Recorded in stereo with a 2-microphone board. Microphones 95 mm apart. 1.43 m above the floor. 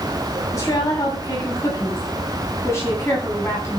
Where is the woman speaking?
35° left (ahead or behind), 9 m; by 3.8 s 25° left (ahead or behind), 11 m.